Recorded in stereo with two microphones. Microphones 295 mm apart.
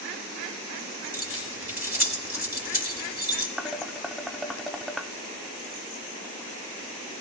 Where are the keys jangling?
55° left (ahead or behind), 2.5 m.